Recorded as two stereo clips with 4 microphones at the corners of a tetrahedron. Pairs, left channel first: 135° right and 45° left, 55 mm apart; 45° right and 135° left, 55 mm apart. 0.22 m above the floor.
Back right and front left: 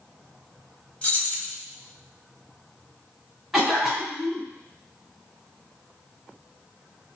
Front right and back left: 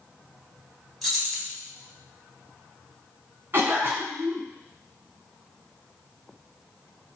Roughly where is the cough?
Behind left.